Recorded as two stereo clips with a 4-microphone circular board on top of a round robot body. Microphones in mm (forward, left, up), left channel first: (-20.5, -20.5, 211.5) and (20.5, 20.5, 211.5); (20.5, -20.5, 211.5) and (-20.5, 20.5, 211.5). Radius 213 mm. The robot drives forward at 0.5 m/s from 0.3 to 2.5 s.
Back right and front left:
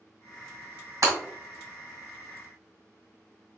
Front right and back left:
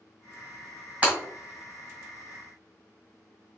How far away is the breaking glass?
About 1.8 m.